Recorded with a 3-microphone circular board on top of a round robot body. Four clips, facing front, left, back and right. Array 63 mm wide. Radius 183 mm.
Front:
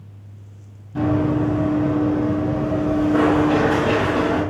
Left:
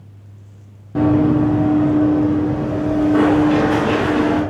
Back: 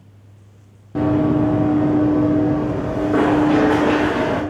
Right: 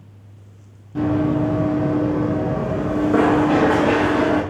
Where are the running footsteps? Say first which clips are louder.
Left 5 dB, back 3 dB; 145° left, 1.1 m; by 4.4 s 125° right, 3.5 m.